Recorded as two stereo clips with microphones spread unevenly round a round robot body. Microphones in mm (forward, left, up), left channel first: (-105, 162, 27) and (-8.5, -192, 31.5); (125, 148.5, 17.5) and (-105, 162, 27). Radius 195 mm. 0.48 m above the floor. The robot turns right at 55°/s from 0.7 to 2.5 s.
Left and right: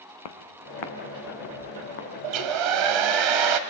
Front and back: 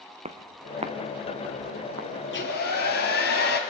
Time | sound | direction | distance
0.2 | footsteps | 115° left | 1.6 m
2.2 | a hair dryer | 70° right | 1.3 m